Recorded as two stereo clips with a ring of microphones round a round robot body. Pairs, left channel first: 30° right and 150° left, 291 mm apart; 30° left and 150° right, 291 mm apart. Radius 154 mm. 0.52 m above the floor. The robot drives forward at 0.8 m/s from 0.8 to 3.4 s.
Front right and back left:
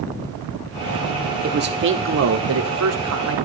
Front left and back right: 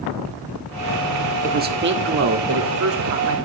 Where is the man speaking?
175° left, 1.1 m; by 3.4 s straight behind, 2.5 m.